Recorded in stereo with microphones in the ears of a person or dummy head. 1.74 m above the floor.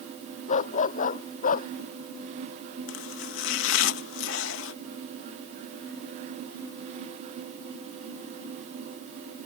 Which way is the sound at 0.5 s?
45° left (ahead or behind).